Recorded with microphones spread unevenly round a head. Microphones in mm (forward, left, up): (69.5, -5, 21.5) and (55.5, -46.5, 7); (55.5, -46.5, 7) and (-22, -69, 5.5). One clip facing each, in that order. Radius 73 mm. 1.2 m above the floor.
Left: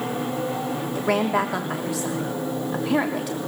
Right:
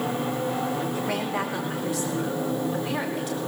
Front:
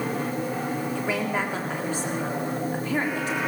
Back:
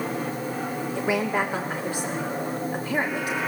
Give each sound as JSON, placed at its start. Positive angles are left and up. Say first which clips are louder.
{"t": 0.9, "sound": "a woman speaking", "louder": "left 5 dB, back 5 dB", "azimuth_deg": 110, "distance_m": 3.0}